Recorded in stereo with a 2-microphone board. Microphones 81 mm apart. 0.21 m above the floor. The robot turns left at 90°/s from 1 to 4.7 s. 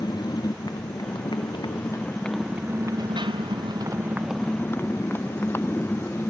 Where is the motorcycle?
125° left; by 6.3 s 155° left.